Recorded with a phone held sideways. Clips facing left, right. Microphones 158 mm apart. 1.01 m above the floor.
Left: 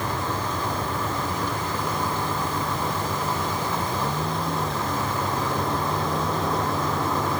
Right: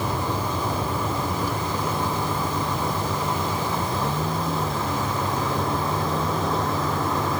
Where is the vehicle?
10° right (ahead or behind); by 7.4 s centre (ahead or behind).